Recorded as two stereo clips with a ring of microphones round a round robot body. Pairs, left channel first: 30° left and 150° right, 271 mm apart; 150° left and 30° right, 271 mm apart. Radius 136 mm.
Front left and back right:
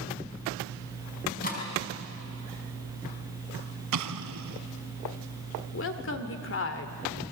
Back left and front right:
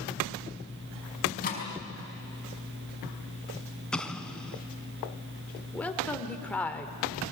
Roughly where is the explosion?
Behind right.